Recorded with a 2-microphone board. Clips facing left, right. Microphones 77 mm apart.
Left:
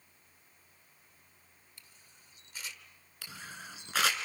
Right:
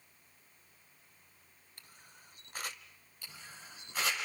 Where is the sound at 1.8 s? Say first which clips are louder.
Right 6 dB; 50° right (ahead or behind), 1.0 m.